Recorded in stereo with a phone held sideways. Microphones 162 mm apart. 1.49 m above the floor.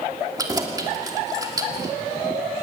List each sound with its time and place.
0.4 s keys jangling: 25° right (ahead or behind), 2.5 m